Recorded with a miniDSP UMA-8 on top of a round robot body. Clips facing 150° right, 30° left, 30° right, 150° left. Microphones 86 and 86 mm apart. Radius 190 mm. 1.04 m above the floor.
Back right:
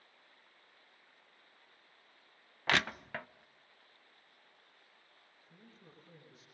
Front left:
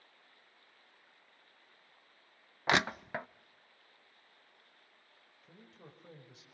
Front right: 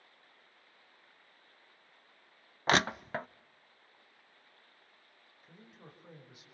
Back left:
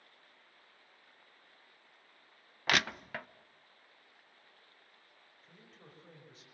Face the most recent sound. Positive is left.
turn(degrees=50)